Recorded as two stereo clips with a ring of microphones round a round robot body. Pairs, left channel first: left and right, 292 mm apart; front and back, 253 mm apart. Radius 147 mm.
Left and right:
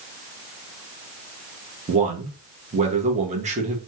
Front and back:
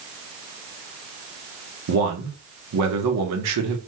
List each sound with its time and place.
1.9 s a man speaking: 155° right, 0.8 m